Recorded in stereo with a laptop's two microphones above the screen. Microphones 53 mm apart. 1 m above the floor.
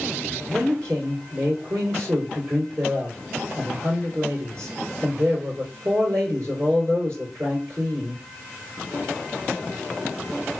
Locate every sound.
0.5 s a man speaking: 70° right (ahead or behind), 2 m